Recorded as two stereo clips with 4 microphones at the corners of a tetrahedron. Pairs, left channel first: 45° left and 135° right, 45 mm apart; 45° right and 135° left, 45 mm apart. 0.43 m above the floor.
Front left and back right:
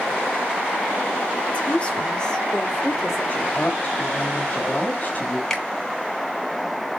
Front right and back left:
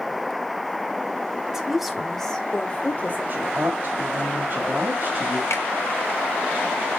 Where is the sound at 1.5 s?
70° left, 1.4 m; by 3.2 s 55° right, 1.5 m.